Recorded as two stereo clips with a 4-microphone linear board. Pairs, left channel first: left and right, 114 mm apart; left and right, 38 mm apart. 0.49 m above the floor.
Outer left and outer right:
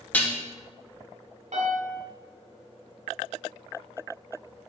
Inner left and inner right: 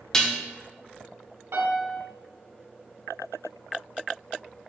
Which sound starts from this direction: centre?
Dishes clattering, at 0.1 s.